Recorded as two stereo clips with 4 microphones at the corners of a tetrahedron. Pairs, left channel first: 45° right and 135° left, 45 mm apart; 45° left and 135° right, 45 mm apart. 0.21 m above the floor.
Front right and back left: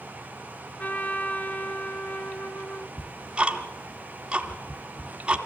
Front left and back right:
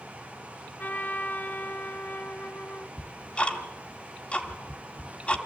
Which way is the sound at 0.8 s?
Straight ahead.